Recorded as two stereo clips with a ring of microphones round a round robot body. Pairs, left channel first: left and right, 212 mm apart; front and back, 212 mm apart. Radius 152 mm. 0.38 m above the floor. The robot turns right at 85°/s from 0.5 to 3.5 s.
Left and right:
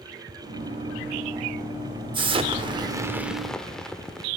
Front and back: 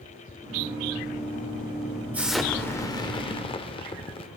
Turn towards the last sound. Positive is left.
turn(degrees=5)